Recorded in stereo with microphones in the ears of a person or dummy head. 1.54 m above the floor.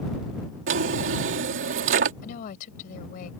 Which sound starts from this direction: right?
A drawer, at 0.7 s.